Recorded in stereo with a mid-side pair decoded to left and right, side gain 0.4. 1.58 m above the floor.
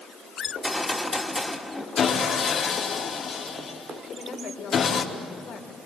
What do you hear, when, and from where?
0.5 s a gunshot: 5° left, 3 m
2.0 s sawing: 55° left, 4.5 m
4.0 s a woman speaking: 70° left, 5.5 m